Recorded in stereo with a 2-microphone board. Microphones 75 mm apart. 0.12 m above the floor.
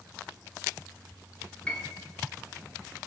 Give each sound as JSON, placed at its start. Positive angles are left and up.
{"t": 1.7, "sound": "a piano", "side_deg": 15, "distance_m": 0.5}